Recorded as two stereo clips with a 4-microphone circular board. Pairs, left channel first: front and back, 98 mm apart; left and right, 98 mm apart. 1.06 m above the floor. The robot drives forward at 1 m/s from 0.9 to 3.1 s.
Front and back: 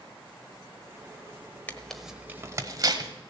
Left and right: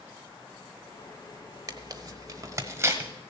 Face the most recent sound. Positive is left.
turn(degrees=-150)